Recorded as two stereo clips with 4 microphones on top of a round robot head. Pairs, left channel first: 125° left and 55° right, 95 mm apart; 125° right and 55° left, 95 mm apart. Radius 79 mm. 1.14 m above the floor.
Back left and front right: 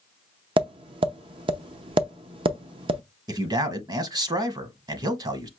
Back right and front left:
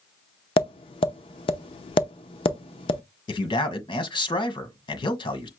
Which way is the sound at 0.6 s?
90° right.